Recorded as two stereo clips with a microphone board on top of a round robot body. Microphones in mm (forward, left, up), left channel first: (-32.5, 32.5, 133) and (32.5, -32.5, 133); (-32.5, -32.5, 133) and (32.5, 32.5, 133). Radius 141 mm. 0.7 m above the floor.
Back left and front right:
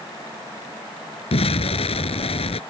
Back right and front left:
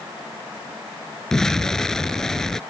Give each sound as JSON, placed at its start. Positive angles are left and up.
{"t": 1.3, "sound": "an explosion", "azimuth_deg": 140}